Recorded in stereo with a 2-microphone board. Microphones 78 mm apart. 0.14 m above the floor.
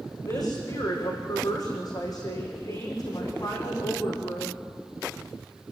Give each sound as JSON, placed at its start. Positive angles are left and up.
{"t": 0.2, "sound": "a woman speaking", "side_deg": 55, "distance_m": 7.5}